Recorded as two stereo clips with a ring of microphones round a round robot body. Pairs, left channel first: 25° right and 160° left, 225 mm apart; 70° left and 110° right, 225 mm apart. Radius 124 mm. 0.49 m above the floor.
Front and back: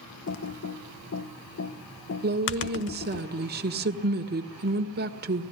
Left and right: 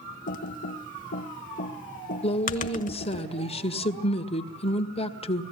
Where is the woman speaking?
125° left, 1.7 m.